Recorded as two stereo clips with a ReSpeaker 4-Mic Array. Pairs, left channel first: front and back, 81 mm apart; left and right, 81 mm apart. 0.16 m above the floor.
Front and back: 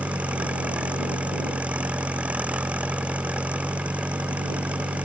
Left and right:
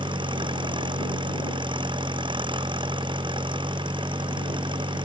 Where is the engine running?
105° right.